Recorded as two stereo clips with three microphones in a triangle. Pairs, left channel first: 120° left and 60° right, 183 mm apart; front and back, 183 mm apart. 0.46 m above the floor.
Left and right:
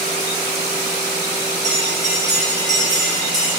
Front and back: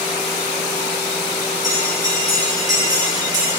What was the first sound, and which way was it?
A bell, 110° right.